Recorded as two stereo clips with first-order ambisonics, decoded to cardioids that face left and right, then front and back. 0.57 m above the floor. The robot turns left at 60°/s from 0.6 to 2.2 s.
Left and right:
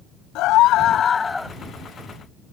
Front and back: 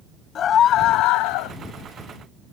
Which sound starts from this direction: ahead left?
A scream, at 0.3 s.